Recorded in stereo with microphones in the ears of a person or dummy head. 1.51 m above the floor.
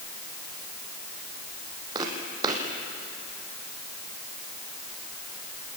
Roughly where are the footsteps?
Right.